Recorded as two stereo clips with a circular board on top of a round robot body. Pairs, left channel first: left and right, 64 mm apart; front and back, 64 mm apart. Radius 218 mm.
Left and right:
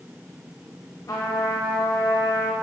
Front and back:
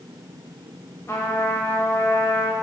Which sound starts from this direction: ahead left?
A trumpet, at 1.1 s.